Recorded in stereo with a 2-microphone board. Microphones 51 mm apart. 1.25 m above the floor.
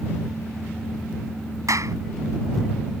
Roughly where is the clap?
Right.